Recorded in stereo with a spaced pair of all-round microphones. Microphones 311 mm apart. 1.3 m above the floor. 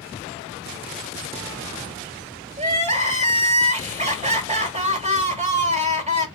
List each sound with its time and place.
2.6 s crying: 25° right (ahead or behind), 1.3 m